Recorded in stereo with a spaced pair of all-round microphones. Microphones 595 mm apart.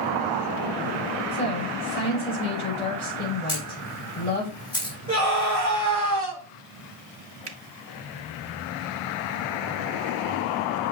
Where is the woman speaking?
75° left (ahead or behind), 5.5 m.